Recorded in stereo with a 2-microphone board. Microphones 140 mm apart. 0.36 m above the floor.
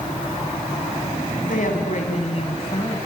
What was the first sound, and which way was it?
A woman speaking, 70° left (ahead or behind).